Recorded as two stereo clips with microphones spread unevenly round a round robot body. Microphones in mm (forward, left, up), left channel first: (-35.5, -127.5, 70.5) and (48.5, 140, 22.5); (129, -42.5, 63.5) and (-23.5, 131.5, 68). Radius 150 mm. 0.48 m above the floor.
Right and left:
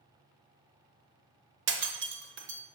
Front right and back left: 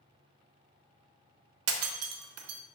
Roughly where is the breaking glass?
Behind left.